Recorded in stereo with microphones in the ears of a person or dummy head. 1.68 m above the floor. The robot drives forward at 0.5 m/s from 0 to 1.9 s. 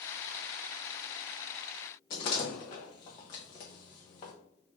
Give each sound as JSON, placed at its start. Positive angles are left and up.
{"t": 2.1, "sound": "a door slam", "side_deg": 25, "distance_m": 0.7}